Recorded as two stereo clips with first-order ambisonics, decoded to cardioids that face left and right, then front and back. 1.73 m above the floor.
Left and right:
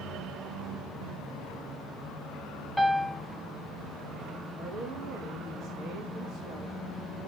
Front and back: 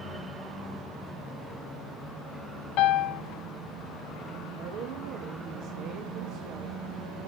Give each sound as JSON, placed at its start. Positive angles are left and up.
{"t": 2.8, "sound": "a piano", "azimuth_deg": 0, "distance_m": 0.6}
{"t": 4.6, "sound": "a woman speaking", "azimuth_deg": -145, "distance_m": 2.5}